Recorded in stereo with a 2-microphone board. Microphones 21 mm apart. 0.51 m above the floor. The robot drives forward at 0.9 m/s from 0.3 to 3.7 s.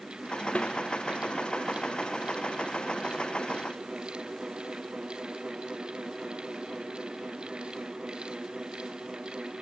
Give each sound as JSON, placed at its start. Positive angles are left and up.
{"t": 0.6, "sound": "a snare drum", "side_deg": 65}